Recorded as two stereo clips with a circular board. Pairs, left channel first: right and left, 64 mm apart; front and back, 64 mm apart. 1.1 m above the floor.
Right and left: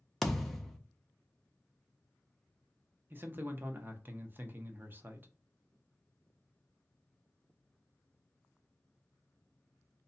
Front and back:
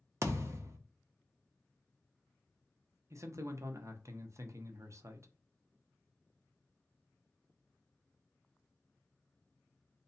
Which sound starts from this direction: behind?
A thud, at 0.2 s.